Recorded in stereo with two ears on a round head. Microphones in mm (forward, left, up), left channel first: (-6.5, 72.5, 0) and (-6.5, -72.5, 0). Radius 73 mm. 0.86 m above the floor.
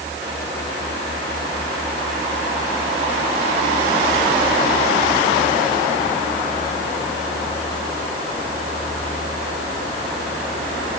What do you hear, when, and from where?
Only background noise.